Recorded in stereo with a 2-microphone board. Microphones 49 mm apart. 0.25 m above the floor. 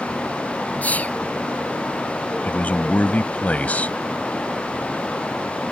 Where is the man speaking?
35° left (ahead or behind).